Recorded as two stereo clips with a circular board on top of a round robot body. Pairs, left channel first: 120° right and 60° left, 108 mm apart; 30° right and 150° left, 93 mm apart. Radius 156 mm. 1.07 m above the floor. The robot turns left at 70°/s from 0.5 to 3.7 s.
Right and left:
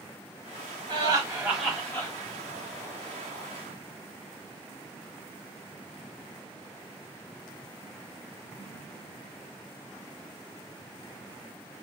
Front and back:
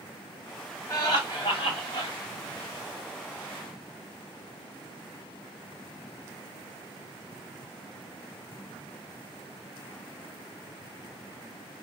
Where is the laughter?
25° left, 1.6 m; by 2.1 s 60° right, 1.6 m.